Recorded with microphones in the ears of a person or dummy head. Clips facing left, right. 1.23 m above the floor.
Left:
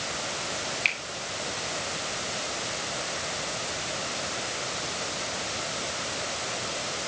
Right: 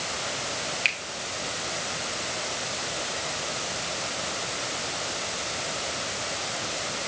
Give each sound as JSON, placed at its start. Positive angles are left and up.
{"t": 0.8, "sound": "a finger snap", "side_deg": -10, "distance_m": 3.5}